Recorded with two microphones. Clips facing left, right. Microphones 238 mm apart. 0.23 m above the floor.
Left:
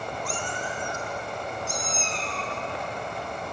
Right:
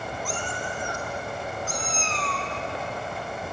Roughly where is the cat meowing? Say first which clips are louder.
Right 1 dB; centre.